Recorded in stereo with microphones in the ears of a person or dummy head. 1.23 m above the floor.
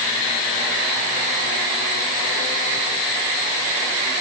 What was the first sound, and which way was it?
Only background noise.